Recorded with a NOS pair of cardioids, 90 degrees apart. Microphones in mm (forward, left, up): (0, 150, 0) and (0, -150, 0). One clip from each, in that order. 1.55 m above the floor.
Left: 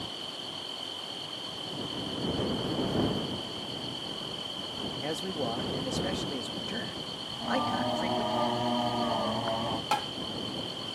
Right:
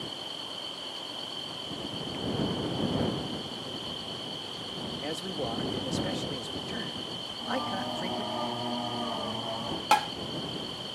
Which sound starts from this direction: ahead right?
Tapping, at 9.9 s.